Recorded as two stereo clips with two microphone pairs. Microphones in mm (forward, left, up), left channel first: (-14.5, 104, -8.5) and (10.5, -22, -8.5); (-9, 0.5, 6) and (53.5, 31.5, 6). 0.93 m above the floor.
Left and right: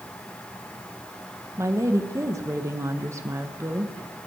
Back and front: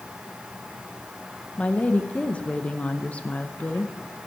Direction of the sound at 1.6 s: 110° right.